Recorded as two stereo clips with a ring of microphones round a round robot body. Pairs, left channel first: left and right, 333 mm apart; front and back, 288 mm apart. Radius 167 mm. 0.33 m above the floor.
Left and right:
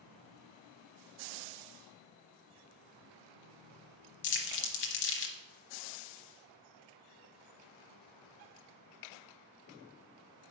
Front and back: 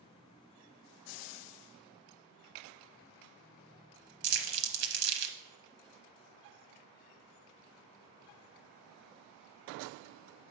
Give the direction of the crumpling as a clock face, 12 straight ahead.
7 o'clock.